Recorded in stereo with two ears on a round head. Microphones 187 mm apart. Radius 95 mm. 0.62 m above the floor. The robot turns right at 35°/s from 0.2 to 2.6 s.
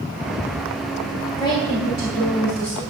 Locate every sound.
1.4 s a woman speaking: 20° left, 3 m; by 2.8 s 60° left, 3 m